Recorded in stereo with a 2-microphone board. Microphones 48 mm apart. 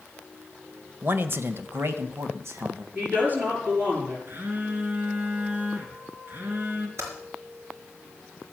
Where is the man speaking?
45° right (ahead or behind), 1.1 m; by 2.9 s 65° right (ahead or behind), 2 m.